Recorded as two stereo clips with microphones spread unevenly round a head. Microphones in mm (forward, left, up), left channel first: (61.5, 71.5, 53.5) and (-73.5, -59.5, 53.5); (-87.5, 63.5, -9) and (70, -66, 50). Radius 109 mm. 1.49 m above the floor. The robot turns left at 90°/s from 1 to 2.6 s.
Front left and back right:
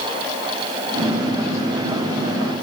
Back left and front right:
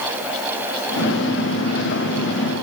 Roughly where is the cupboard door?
No cupboard door in this recording.